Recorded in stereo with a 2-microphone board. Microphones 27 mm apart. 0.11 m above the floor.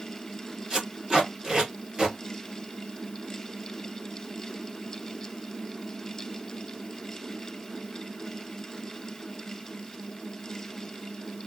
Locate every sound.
0.7 s tape being pulled: 25° right (ahead or behind), 1.8 m